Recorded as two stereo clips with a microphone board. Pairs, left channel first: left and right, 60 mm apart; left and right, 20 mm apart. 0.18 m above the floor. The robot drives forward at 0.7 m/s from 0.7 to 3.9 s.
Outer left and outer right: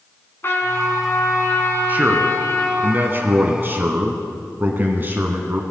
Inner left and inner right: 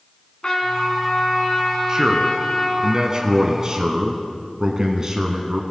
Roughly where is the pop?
I don't hear a pop.